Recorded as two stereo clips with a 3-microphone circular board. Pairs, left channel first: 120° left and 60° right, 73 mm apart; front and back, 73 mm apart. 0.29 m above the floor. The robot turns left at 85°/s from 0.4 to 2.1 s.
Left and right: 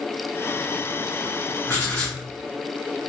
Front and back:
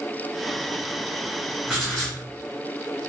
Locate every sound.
1.7 s writing: 85° left, 1.6 m; by 2.2 s 50° left, 1.6 m